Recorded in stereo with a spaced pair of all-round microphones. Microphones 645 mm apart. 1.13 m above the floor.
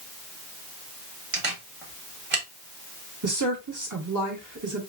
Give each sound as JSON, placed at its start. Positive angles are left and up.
{"t": 1.3, "sound": "a camera shutter", "side_deg": -50, "distance_m": 1.2}
{"t": 3.2, "sound": "a woman speaking", "side_deg": -30, "distance_m": 1.3}